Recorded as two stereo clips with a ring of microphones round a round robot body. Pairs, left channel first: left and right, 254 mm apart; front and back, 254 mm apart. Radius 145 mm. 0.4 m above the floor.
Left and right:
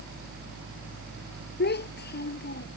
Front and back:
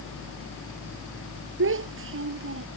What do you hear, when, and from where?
1.6 s a child speaking: 140° left